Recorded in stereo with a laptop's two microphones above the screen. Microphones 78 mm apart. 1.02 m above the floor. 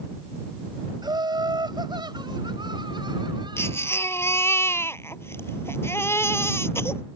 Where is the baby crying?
30° left (ahead or behind).